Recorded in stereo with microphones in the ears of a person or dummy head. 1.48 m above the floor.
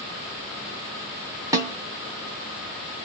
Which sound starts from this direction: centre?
A snare drum, at 1.5 s.